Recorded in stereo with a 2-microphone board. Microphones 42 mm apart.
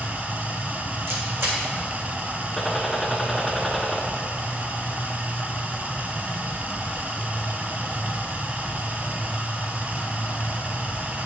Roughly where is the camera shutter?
Right.